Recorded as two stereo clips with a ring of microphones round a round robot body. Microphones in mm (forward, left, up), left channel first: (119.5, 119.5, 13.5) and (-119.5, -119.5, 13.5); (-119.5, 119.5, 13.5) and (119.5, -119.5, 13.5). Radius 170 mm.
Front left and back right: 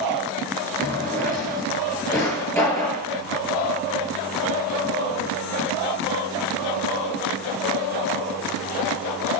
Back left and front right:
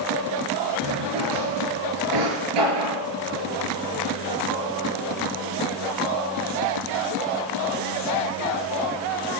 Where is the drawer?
35° right, 6.5 m.